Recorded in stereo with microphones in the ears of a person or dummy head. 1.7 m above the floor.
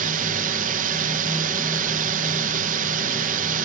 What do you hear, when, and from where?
0.0 s a drone: 45° right (ahead or behind)